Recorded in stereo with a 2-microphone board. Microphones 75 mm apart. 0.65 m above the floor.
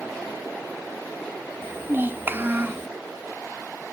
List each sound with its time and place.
1.6 s a child speaking: 30° right (ahead or behind), 0.5 m